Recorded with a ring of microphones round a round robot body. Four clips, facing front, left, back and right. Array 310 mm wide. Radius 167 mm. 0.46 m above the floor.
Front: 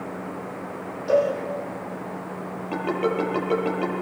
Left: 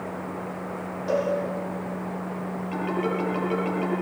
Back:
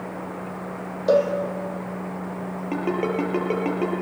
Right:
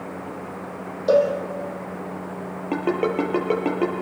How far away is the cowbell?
About 5.5 m.